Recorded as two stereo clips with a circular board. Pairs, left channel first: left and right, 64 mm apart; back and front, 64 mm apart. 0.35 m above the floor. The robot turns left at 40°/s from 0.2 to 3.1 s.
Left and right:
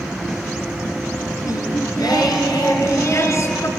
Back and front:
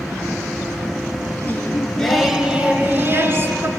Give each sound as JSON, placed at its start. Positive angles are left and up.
{"t": 1.4, "sound": "singing", "azimuth_deg": 120, "distance_m": 2.0}